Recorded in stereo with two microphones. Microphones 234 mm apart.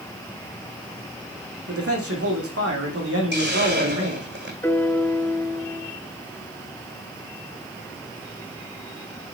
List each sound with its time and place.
1.7 s a man speaking: 75° right (ahead or behind), 5.5 m
3.3 s a hiss: 50° right (ahead or behind), 6 m
4.6 s a piano: 10° left (ahead or behind), 0.8 m